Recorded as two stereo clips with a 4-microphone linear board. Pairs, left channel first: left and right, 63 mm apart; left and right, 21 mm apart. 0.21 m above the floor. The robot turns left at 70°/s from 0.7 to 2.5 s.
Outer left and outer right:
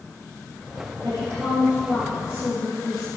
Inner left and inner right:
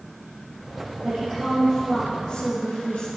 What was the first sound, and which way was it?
A woman speaking, 125° right.